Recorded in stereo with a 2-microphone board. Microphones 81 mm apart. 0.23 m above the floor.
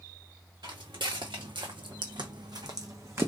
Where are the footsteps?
65° right (ahead or behind), 1.3 m; by 3.3 s 35° right (ahead or behind), 0.8 m.